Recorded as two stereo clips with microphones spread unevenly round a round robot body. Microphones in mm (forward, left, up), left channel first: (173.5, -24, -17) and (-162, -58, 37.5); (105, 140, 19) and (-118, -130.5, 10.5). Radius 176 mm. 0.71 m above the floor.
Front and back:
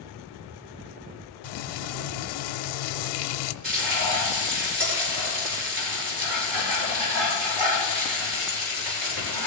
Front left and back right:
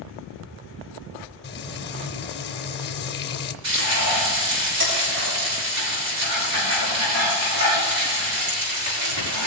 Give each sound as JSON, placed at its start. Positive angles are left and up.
{"t": 1.4, "sound": "frying", "azimuth_deg": -10, "distance_m": 0.7}
{"t": 3.6, "sound": "frying", "azimuth_deg": -175, "distance_m": 6.5}